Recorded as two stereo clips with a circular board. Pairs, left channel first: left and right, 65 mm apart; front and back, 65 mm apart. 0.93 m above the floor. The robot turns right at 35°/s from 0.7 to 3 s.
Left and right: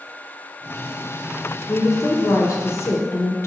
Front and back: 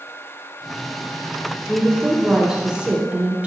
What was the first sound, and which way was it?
A woman speaking, 70° left.